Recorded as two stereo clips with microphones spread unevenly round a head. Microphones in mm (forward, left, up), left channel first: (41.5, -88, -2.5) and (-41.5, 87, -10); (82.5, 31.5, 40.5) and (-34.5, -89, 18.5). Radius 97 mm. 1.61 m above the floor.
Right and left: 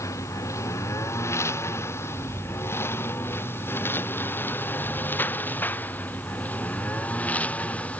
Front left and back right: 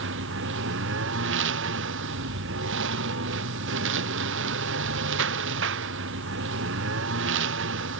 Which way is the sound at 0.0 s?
140° right.